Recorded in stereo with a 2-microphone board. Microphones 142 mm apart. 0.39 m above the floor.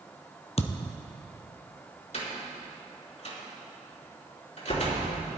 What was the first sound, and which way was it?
A thud, 50° left (ahead or behind).